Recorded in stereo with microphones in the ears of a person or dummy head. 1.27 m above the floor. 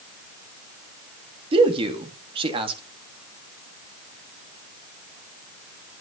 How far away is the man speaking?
About 1.8 m.